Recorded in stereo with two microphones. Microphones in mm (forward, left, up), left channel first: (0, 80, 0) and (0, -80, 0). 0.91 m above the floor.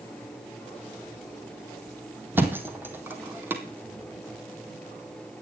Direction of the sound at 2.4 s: 10° right (ahead or behind).